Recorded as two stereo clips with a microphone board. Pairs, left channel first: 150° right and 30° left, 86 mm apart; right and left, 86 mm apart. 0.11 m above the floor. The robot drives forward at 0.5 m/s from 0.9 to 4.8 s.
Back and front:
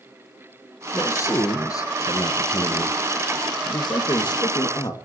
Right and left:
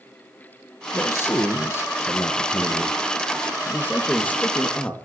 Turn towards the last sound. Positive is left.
turn(degrees=-160)